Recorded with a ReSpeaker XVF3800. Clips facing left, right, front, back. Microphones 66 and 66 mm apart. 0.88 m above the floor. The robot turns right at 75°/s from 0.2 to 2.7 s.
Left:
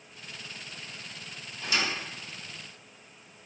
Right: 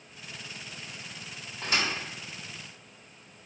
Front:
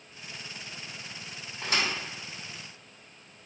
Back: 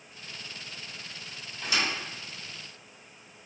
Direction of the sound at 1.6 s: 50° right.